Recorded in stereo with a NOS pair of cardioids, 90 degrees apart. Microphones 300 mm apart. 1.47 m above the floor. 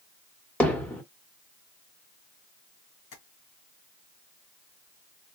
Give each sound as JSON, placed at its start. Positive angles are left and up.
{"t": 0.6, "sound": "hammering", "azimuth_deg": 5, "distance_m": 1.5}
{"t": 3.1, "sound": "tapping", "azimuth_deg": 60, "distance_m": 2.0}